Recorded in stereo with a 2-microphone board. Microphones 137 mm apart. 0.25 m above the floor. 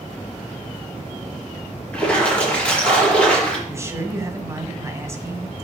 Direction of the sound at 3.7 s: 20° right (ahead or behind).